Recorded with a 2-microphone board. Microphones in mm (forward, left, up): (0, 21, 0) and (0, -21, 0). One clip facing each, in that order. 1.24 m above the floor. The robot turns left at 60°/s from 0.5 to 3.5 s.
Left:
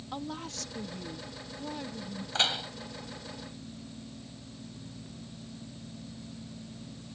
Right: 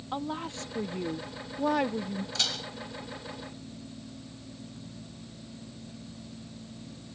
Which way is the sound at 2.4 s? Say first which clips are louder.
Left 6 dB; 35° left (ahead or behind).